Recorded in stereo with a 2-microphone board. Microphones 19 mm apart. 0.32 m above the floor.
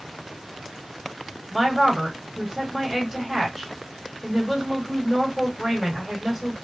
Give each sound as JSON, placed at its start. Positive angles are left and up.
{"t": 1.5, "sound": "a woman speaking", "side_deg": 15, "distance_m": 1.7}